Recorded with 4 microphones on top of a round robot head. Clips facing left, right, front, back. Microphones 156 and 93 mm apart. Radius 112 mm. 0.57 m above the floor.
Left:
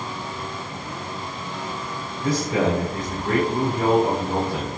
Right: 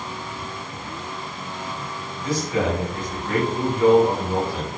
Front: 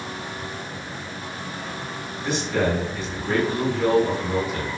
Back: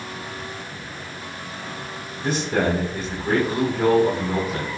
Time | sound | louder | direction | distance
2.2 | a man speaking | left 2 dB, back 1 dB | 140° left | 4 m